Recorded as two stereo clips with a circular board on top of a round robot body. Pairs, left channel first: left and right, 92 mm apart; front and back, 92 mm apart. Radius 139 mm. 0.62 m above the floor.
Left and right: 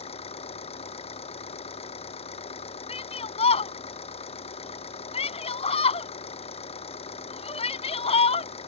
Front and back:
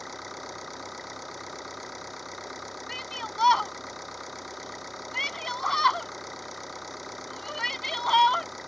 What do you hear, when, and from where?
0.0 s an engine running: 90° left
2.9 s a shout: 85° left